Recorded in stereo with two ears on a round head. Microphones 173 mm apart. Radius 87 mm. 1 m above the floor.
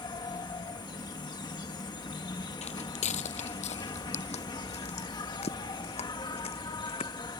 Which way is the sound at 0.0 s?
20° left (ahead or behind).